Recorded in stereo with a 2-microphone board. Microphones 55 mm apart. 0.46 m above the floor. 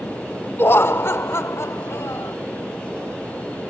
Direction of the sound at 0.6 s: 40° left (ahead or behind).